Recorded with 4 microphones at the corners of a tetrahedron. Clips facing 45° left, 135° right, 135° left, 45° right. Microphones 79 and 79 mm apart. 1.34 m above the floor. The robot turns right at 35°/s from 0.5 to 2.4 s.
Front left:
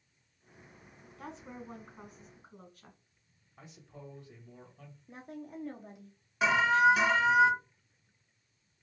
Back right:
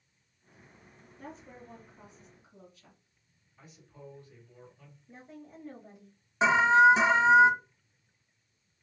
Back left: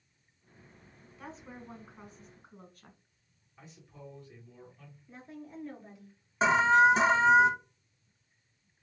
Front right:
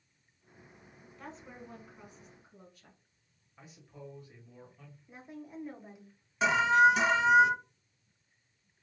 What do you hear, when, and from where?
1.2 s a woman speaking: 45° left, 1.2 m; by 3.0 s 85° left, 1.2 m
3.6 s a man speaking: 35° left, 2 m
5.1 s a woman speaking: 30° left, 1.2 m
6.4 s an alarm: 175° left, 0.6 m